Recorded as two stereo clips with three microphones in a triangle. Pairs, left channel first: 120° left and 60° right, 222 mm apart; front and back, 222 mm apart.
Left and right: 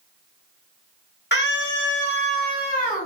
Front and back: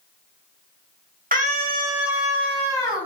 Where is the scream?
140° left, 0.9 m; by 3.1 s 65° left, 1.6 m.